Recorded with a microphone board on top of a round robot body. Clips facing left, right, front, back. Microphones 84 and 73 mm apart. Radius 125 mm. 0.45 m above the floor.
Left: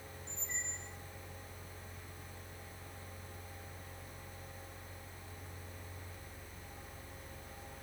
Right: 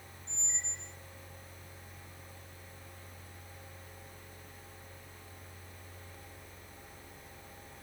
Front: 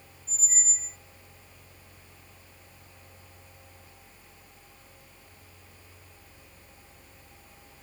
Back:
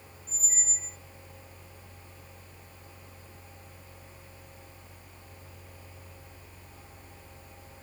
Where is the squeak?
35° left, 0.9 m.